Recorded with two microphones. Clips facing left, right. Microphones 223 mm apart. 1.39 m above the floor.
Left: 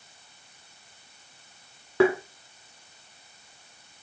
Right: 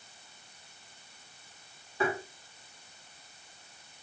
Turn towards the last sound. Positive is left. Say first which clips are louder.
# left 11 dB
turn(degrees=75)  # may be behind; listen again after turning